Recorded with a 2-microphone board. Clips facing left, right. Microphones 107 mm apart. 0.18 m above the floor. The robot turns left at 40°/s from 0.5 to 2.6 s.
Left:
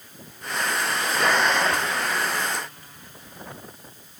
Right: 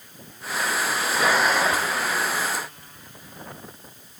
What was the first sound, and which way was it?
Only background noise.